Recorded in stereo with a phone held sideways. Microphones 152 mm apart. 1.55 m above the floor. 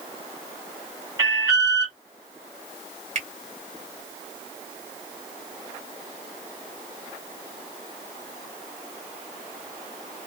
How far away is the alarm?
About 1.6 m.